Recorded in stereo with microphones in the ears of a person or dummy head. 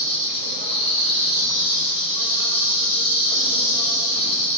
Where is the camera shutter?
I don't hear a camera shutter.